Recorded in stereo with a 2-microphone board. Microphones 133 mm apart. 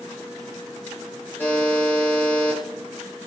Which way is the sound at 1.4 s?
20° left (ahead or behind).